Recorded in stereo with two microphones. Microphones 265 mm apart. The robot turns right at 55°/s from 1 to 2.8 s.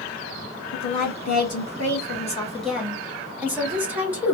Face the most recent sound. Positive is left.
turn(degrees=-175)